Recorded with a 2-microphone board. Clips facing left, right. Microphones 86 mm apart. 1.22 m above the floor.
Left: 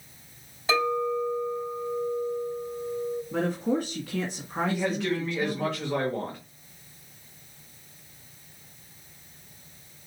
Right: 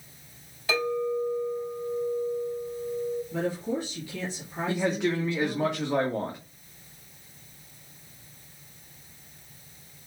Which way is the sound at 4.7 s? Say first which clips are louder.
Right 3 dB; 15° right (ahead or behind).